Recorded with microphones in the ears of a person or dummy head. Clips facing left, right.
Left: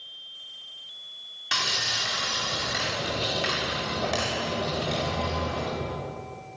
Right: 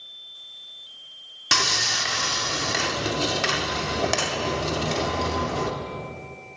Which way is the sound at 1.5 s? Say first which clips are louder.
Right 5 dB; 60° right (ahead or behind).